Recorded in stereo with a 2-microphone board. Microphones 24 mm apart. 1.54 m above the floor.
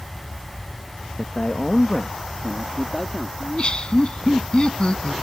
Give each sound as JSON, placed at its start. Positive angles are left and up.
{"t": 1.2, "sound": "a man speaking", "side_deg": 55}
{"t": 3.4, "sound": "laughter", "side_deg": 40}